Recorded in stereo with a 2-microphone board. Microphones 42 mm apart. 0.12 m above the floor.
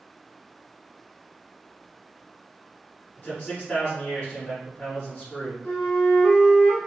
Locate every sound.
3.2 s a man speaking: 20° left (ahead or behind), 1.6 m
5.6 s a flute: 45° left (ahead or behind), 1.3 m